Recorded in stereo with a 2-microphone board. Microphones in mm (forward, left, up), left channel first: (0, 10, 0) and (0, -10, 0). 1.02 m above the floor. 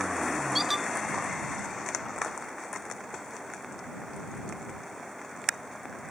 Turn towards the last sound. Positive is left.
turn(degrees=-15)  # may be behind; listen again after turning